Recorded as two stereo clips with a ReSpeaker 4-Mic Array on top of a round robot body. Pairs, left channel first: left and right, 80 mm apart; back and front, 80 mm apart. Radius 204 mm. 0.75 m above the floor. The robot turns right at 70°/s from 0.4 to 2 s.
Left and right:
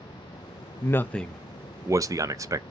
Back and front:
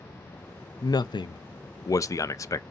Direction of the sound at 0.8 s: 140° left.